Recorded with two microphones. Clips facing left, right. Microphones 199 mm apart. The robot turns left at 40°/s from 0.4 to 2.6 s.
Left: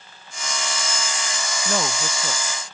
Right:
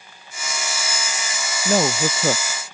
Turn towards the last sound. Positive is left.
turn(degrees=-65)